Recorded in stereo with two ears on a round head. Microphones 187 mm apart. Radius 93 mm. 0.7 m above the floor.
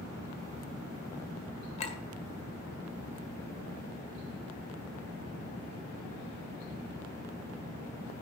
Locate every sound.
1.8 s a clink: 30° left (ahead or behind), 1.6 m